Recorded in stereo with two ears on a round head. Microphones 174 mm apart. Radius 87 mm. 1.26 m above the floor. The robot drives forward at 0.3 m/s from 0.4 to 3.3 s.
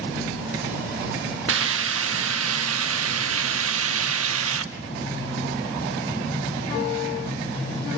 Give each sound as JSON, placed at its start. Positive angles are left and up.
{"t": 1.5, "sound": "a hiss", "side_deg": -70, "distance_m": 1.6}